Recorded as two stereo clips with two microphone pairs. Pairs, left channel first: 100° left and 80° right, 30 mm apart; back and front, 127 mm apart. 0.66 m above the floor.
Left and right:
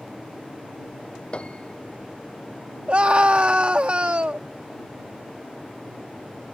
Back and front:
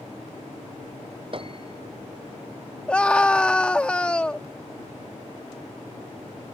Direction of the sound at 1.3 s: 45° left.